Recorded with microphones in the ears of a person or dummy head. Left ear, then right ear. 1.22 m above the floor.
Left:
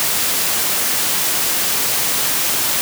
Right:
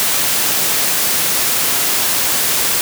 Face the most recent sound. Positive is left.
No sound to turn to.